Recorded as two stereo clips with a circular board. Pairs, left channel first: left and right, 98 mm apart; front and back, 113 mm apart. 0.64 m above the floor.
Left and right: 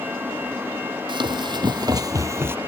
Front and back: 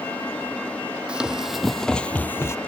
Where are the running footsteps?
100° right, 1.1 m; by 2.6 s 40° right, 0.7 m.